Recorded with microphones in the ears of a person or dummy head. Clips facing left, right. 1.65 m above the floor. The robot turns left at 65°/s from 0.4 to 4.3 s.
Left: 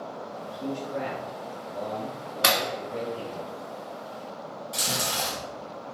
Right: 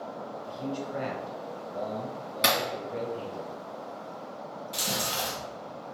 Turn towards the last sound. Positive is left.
turn(degrees=0)  # may be behind; listen again after turning